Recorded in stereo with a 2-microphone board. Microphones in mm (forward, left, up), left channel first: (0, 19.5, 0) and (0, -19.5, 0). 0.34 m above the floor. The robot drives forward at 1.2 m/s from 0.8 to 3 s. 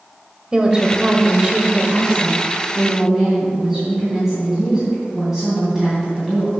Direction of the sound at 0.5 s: 25° right (ahead or behind).